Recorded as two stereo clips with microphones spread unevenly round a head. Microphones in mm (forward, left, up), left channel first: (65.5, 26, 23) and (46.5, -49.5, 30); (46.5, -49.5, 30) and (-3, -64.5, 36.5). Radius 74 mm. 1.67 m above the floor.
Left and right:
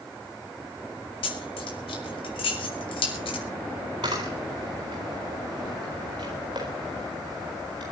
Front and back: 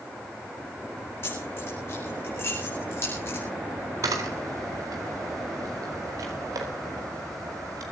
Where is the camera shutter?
165° right, 4 m.